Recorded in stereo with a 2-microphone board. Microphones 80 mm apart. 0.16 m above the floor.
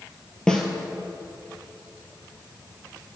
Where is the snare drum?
10° left (ahead or behind), 1.0 m.